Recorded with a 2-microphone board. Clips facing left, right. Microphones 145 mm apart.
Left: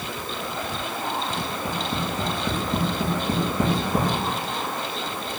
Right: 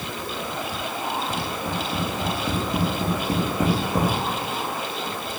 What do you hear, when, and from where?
1.4 s tapping: 60° left (ahead or behind), 6 m